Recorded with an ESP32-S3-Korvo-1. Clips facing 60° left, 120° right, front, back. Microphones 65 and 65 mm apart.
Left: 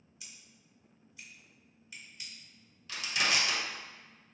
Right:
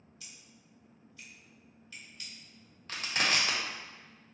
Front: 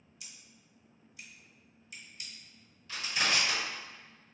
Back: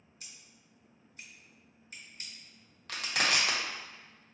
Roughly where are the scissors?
Behind left.